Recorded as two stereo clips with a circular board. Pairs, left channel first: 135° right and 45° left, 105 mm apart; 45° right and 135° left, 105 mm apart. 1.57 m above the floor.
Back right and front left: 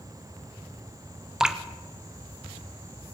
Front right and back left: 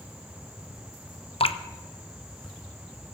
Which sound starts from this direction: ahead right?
Dripping, at 1.4 s.